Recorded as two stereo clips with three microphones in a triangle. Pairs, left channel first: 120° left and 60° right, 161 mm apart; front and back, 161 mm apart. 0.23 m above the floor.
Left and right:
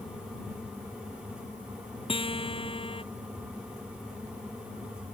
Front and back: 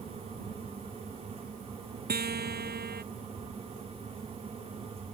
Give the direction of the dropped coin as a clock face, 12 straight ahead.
I don't hear a dropped coin.